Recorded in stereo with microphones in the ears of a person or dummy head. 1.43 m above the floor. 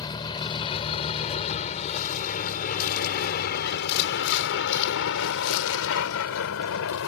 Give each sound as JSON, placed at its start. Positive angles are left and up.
{"t": 0.0, "sound": "a vehicle", "side_deg": 25}